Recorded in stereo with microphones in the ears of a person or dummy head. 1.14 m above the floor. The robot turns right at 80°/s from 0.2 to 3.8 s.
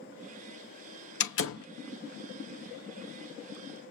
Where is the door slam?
65° left (ahead or behind), 0.8 m; by 1.7 s 70° left (ahead or behind), 0.8 m.